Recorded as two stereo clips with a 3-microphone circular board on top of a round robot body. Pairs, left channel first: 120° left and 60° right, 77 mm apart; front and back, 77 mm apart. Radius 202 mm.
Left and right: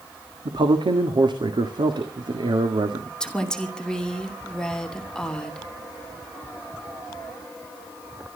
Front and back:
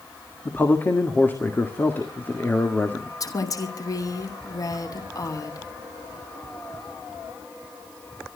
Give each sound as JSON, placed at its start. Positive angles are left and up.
{"t": 0.5, "sound": "a man speaking", "azimuth_deg": -65, "distance_m": 2.0}
{"t": 3.2, "sound": "a woman speaking", "azimuth_deg": 40, "distance_m": 2.5}